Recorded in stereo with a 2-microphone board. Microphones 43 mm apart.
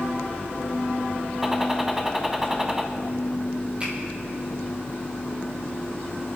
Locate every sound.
1.4 s a gunshot: 5° right (ahead or behind), 0.9 m
3.8 s a finger snap: 25° right (ahead or behind), 4.5 m